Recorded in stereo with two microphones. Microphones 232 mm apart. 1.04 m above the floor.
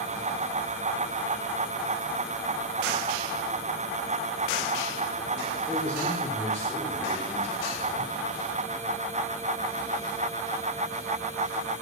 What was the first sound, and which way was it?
A man speaking, 5° left (ahead or behind).